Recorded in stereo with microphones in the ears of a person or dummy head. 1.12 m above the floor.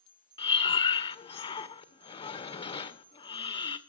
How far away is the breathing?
About 1.9 m.